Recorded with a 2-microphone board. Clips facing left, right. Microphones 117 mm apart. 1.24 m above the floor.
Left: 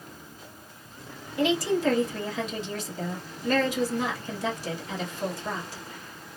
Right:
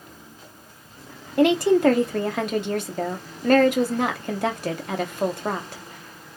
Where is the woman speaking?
70° right (ahead or behind), 0.8 m.